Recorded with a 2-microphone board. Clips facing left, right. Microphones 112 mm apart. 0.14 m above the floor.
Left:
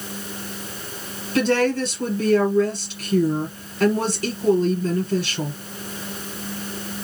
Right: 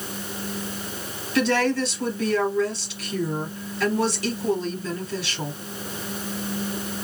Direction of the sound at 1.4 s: 45° left (ahead or behind).